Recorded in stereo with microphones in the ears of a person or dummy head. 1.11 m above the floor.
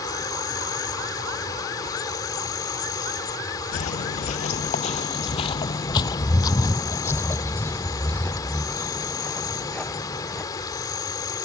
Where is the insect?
25° left (ahead or behind).